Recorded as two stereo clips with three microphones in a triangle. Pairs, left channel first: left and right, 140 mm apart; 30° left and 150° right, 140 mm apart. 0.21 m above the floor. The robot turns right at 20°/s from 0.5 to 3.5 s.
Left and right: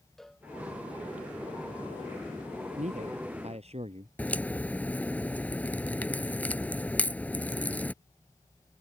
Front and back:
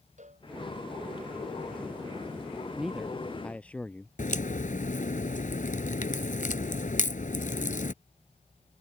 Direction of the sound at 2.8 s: 65° right.